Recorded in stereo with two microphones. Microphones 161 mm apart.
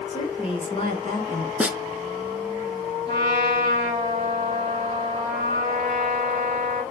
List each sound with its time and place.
0.1 s a woman speaking: 40° left (ahead or behind), 2 m; by 1.5 s 30° left (ahead or behind), 1.6 m
1.6 s a snare drum: 10° right (ahead or behind), 0.6 m
3.1 s a trumpet: 30° left (ahead or behind), 3 m